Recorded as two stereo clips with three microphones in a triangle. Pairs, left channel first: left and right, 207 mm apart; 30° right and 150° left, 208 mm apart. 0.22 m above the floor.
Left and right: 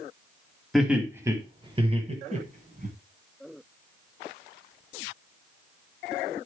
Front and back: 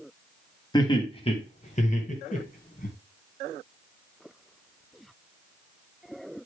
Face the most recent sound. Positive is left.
turn(degrees=-65)